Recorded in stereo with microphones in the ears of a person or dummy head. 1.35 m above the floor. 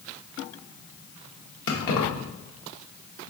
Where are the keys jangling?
70° left (ahead or behind), 1.0 m.